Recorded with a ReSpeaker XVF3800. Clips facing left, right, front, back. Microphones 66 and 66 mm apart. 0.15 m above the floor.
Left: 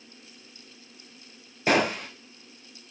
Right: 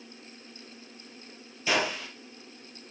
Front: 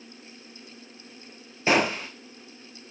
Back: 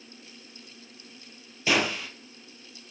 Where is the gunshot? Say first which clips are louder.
Left 5 dB, front 3 dB; 55° left, 1.3 m.